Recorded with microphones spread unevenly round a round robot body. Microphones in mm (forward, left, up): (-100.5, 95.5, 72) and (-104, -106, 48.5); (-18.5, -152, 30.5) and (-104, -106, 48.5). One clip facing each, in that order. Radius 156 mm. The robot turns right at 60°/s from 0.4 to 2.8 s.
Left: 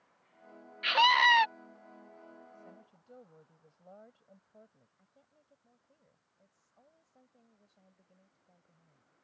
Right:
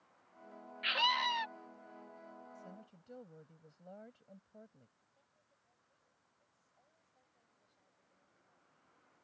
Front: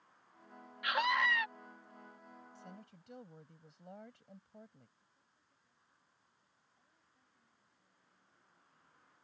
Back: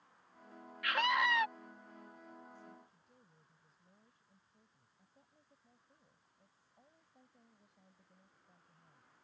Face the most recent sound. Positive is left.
turn(degrees=110)